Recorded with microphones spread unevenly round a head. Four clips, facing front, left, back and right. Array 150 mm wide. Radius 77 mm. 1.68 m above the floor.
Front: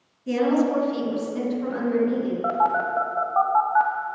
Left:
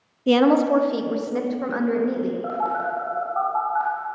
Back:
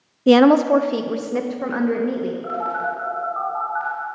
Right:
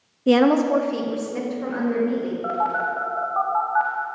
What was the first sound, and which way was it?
A woman speaking, 170° right.